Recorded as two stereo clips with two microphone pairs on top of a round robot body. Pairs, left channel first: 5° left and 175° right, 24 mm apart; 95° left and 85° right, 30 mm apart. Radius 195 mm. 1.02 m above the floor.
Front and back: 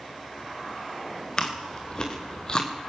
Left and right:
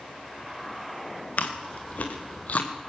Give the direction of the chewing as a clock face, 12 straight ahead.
10 o'clock.